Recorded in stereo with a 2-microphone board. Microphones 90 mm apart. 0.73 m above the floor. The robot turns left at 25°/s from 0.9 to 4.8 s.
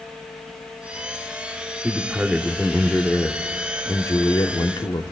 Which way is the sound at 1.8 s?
165° right.